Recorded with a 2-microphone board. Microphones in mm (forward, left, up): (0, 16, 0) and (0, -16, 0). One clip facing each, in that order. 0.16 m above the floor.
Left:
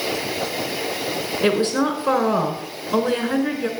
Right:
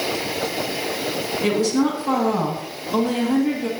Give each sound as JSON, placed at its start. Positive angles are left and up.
{"t": 1.4, "sound": "a woman speaking", "side_deg": 50, "distance_m": 1.6}